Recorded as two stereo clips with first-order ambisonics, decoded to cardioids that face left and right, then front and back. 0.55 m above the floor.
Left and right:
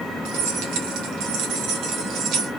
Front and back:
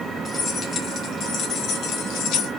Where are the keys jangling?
75° right, 2 m; by 2.5 s 40° right, 1.9 m.